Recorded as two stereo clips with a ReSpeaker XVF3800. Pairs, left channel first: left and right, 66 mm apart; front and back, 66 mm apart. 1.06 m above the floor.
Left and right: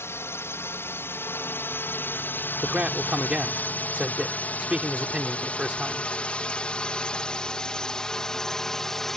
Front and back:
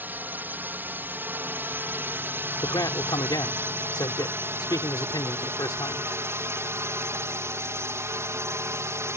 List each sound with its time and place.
0.0 s a drone: 125° left; by 9.2 s 175° left
2.6 s a man speaking: 15° right